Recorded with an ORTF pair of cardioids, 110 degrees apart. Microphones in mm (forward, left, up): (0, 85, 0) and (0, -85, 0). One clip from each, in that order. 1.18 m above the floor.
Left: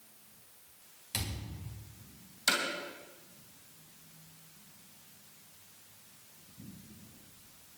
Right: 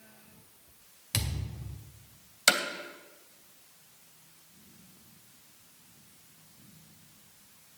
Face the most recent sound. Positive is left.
turn(degrees=-55)